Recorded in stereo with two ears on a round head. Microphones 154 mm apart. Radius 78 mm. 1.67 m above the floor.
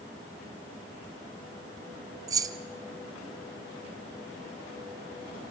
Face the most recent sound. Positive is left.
turn(degrees=-20)  # may be behind; listen again after turning